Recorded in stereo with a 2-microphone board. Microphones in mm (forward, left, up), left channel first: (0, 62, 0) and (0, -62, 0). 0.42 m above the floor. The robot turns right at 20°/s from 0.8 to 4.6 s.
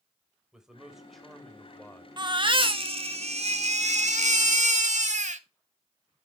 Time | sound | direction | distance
0.5 | a man speaking | 5° right (ahead or behind) | 2 m
2.2 | a baby crying | 140° right | 0.9 m